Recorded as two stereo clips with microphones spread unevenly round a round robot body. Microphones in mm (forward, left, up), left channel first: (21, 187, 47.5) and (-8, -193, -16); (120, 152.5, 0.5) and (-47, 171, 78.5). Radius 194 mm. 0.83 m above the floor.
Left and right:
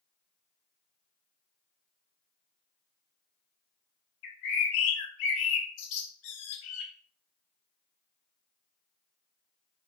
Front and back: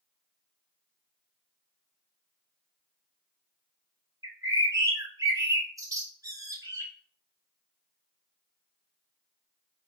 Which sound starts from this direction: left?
A bird, at 4.2 s.